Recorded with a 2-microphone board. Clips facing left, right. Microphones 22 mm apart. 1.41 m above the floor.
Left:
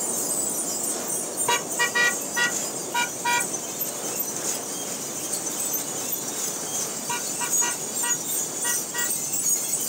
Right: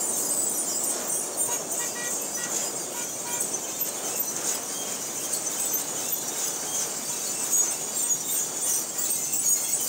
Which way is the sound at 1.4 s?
60° left (ahead or behind).